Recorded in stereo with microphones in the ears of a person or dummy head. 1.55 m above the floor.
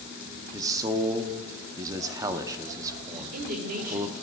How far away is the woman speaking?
About 1.1 m.